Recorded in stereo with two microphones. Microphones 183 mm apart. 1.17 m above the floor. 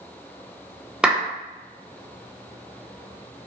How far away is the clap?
About 0.7 m.